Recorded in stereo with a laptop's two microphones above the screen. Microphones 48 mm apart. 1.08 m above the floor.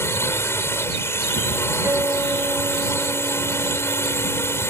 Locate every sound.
0.0 s a drone: 60° left (ahead or behind)
1.8 s a guitar: 55° right (ahead or behind)